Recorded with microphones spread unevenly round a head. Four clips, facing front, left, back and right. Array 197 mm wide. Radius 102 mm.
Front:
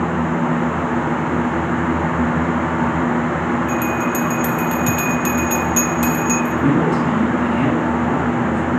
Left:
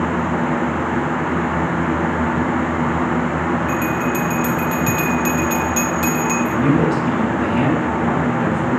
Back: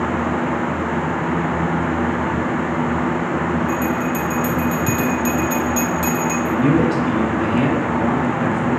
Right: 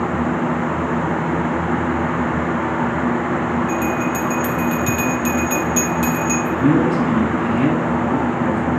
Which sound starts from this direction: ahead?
A bell, at 3.7 s.